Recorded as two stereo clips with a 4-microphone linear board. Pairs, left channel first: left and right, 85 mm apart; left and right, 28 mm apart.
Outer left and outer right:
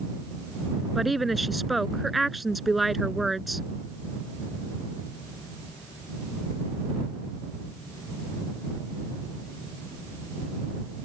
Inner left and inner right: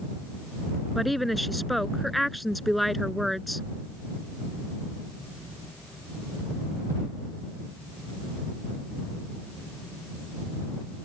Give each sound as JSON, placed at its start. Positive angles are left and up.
{"t": 0.9, "sound": "a woman speaking", "side_deg": 0}